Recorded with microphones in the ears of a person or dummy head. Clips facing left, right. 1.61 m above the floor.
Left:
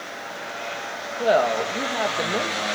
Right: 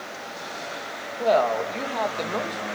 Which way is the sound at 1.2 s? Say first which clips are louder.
Left 1 dB; 15° left (ahead or behind).